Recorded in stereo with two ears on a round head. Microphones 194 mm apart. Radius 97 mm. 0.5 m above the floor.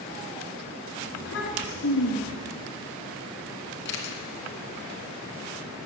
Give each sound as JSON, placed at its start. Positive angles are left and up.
{"t": 1.1, "sound": "a child speaking", "side_deg": 60, "distance_m": 3.0}
{"t": 3.9, "sound": "a camera shutter", "side_deg": 60, "distance_m": 2.5}